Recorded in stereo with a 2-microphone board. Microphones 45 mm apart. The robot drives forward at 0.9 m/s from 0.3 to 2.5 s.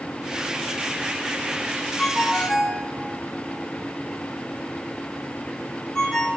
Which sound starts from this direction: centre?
A ringtone, at 2.0 s.